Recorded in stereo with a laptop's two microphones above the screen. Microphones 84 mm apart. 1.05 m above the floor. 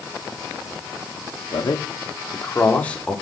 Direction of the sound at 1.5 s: 60° left (ahead or behind).